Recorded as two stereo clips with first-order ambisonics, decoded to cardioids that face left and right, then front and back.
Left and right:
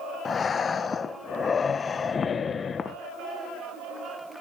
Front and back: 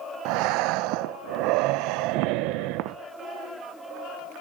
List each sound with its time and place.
0.2 s breathing: 160° left, 0.8 m